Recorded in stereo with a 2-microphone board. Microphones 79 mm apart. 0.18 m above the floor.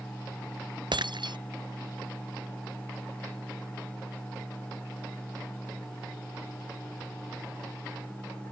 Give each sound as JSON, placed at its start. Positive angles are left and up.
{"t": 0.9, "sound": "breaking glass", "side_deg": -75}